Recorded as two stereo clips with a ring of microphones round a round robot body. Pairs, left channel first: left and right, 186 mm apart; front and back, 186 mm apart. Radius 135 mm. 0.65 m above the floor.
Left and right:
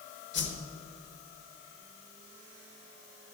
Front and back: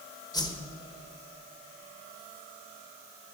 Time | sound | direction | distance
0.3 | a whoosh | 70° left | 1.5 m